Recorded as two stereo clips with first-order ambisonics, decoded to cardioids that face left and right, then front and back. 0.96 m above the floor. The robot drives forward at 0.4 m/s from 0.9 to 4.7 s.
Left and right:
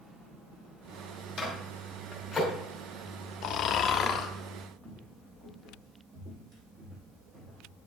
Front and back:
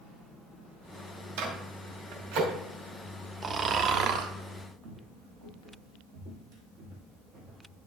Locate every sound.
1.4 s a microwave: 165° left, 2.5 m
3.4 s snoring: 115° left, 0.5 m; by 4.3 s 145° left, 0.7 m
4.8 s footsteps: 165° right, 2.5 m; by 7.8 s 130° right, 2.5 m